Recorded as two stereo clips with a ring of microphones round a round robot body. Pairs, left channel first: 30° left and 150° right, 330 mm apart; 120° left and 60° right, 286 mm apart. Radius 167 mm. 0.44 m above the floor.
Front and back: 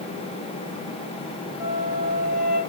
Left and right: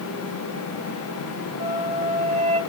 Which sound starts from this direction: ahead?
A flute, at 1.6 s.